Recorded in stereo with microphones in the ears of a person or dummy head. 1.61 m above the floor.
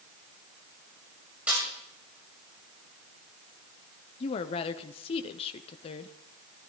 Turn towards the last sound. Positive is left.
turn(degrees=30)  # may be behind; listen again after turning